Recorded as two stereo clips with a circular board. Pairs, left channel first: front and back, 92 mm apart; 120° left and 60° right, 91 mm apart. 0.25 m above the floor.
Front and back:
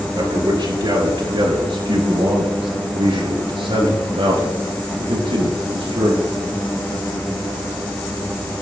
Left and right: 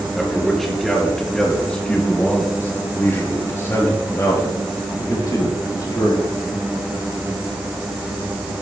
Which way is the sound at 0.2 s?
150° right.